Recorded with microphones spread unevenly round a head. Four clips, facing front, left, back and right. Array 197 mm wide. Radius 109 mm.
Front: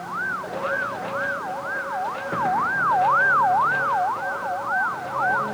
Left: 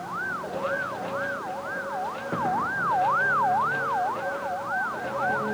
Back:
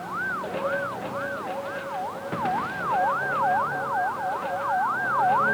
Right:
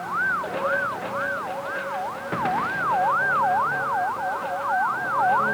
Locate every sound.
Only background noise.